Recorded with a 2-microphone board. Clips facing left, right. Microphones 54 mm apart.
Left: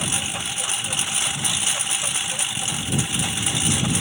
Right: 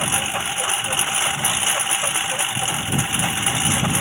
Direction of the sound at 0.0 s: 30° right (ahead or behind).